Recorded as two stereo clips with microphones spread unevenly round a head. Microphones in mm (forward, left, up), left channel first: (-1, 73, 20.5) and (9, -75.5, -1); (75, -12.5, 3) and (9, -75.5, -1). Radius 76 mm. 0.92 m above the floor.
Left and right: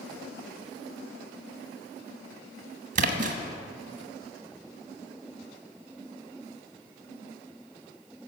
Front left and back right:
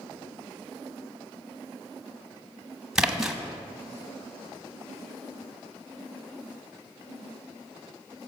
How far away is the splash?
About 1.0 m.